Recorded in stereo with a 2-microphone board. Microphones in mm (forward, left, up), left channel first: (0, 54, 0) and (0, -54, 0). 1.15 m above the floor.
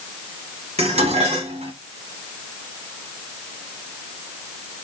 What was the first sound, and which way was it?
Dishes clattering, 85° right.